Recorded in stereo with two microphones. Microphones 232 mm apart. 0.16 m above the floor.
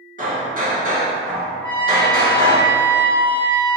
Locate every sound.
0.2 s hammering: 40° right (ahead or behind), 1.4 m
1.6 s a trumpet: 10° left (ahead or behind), 0.9 m